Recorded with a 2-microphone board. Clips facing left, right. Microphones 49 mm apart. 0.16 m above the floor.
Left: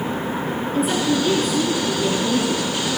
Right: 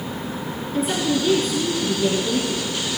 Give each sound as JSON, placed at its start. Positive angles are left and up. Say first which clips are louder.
{"t": 0.7, "sound": "a woman speaking", "louder": "left 1 dB", "side_deg": 0, "distance_m": 2.5}